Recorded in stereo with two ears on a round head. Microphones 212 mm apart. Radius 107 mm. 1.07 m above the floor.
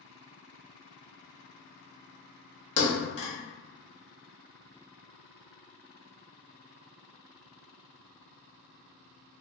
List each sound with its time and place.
2.8 s a thud: 55° left (ahead or behind), 1.2 m